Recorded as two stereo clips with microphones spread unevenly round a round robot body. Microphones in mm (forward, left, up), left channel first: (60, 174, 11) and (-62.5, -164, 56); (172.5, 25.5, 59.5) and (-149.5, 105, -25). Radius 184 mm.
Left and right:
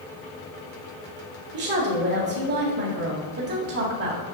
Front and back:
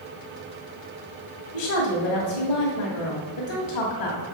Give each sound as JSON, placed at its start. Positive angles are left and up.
{"t": 1.5, "sound": "a woman speaking", "azimuth_deg": -55, "distance_m": 1.9}